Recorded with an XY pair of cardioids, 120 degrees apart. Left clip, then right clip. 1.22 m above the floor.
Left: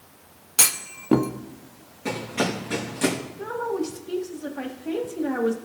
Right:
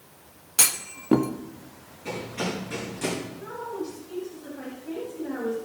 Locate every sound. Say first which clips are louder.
0.6 s a clunk: left 2 dB; 5° left, 0.6 m
2.0 s running footsteps: left 5 dB; 45° left, 5 m
3.4 s a woman speaking: left 6 dB; 65° left, 1.8 m